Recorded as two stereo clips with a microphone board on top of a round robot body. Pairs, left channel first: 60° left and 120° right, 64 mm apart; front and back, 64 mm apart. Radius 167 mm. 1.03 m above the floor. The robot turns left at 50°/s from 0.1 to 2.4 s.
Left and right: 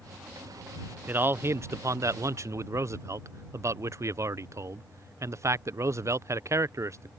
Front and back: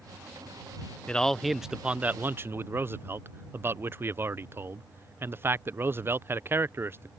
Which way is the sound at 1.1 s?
70° right.